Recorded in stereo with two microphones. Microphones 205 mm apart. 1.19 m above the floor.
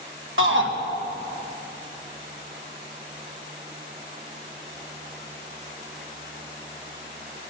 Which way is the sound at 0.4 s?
70° right (ahead or behind).